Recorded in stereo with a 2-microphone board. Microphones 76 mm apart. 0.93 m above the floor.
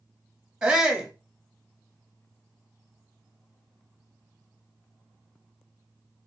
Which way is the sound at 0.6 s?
10° right (ahead or behind).